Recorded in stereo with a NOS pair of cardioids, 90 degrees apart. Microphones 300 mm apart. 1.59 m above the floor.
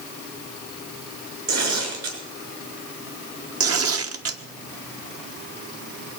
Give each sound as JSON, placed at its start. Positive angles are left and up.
{"t": 1.5, "sound": "tearing paper", "azimuth_deg": -60, "distance_m": 6.5}
{"t": 3.6, "sound": "tearing paper", "azimuth_deg": -50, "distance_m": 1.4}